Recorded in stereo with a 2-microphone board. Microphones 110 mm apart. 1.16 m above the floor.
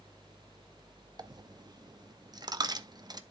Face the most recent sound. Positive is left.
turn(degrees=-35)  # may be behind; listen again after turning